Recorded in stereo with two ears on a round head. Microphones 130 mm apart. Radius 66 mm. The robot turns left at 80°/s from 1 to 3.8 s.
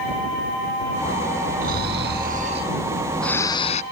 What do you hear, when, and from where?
1.6 s snoring: 60° right; by 3.8 s 125° left